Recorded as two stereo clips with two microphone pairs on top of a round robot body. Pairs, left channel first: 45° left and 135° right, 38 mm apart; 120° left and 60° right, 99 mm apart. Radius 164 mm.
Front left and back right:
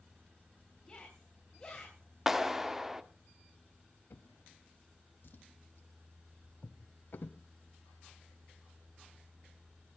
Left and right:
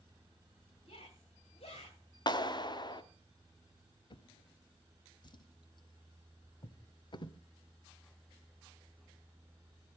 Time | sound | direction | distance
0.8 | a shout | 115° left | 4 m
2.3 | a clap | 150° left | 1.4 m
4.1 | a drawer | 75° left | 0.8 m